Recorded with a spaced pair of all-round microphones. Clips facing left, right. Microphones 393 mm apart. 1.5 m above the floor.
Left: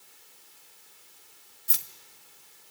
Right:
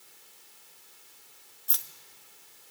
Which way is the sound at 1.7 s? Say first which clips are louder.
Left 3 dB; 40° left (ahead or behind).